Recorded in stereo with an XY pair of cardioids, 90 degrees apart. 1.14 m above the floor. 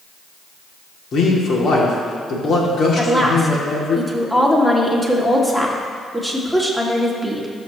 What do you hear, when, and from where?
1.1 s a man speaking: 60° left, 2.5 m
3.0 s a woman speaking: 10° left, 2.5 m